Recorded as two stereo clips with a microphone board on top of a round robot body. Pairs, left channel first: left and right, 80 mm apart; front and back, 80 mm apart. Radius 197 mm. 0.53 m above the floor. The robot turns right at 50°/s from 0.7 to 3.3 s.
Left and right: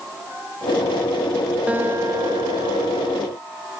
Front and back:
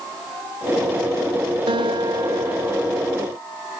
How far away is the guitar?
About 0.7 m.